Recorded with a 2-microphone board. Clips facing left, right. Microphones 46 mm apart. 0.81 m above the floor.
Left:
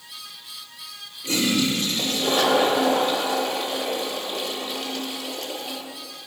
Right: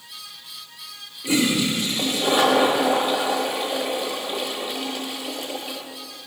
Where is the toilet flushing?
15° right (ahead or behind), 0.6 m.